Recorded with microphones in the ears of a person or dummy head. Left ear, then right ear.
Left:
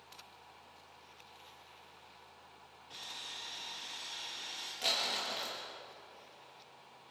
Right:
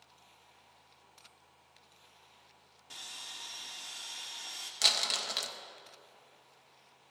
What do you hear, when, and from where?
2.9 s sawing: 55° right (ahead or behind), 2.5 m
4.8 s crumpling: 60° right (ahead or behind), 1.7 m